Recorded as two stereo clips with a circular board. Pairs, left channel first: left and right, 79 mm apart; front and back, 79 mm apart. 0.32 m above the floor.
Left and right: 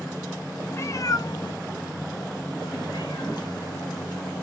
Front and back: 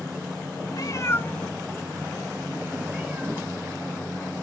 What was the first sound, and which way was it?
A cat meowing, 30° left.